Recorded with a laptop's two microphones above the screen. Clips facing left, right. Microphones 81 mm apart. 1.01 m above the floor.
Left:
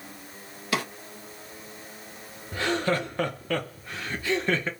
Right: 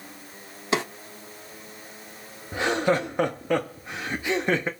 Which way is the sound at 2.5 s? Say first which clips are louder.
Right 3 dB; 20° right (ahead or behind).